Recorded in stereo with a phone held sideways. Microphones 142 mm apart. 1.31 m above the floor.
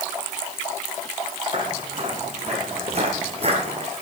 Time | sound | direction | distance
1.5 | footsteps | 40° right (ahead or behind) | 3 m